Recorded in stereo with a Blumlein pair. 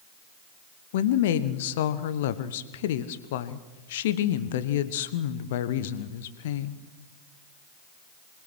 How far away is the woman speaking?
About 1.3 m.